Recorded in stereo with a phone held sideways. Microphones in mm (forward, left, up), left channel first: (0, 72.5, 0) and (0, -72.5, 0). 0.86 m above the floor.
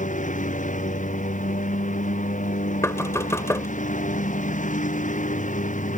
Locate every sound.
0.0 s a lawn mower: 60° left (ahead or behind)
2.8 s knocking: 20° left (ahead or behind)